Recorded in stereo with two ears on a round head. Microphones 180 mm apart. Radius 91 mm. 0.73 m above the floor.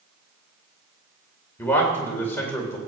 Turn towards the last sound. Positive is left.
turn(degrees=10)  # may be behind; listen again after turning